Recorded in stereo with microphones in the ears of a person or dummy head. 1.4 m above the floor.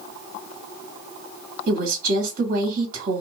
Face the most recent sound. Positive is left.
turn(degrees=-50)  # may be behind; listen again after turning